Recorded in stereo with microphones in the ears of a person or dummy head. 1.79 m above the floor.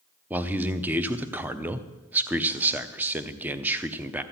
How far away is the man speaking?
About 0.7 m.